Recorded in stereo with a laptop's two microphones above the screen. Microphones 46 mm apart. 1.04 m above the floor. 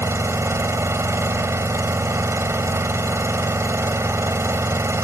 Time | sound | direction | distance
0.0 | an engine running | 80° right | ?